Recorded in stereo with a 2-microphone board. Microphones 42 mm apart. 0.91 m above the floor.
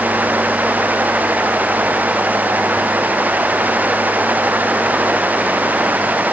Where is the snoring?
I don't hear snoring.